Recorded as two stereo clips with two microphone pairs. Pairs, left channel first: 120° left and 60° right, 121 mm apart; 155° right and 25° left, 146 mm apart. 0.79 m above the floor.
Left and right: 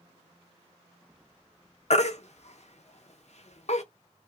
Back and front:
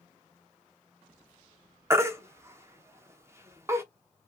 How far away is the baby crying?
About 0.6 m.